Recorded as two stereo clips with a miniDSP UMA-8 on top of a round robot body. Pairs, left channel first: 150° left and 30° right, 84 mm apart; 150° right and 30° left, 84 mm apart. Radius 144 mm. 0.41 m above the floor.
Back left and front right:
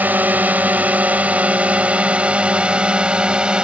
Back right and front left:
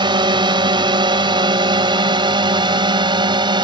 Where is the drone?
40° left; by 3.6 s 50° left.